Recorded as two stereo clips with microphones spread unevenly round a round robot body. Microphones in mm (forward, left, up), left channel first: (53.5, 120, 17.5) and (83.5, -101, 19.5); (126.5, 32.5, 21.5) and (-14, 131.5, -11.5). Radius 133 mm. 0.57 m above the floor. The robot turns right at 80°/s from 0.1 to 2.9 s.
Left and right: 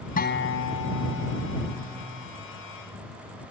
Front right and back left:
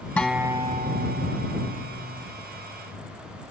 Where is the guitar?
45° left; by 2.3 s 145° right.